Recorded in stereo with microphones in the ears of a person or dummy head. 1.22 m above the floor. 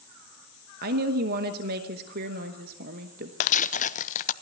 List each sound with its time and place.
0.8 s a woman speaking: 45° right (ahead or behind), 1.0 m
3.4 s tearing paper: 40° left (ahead or behind), 0.6 m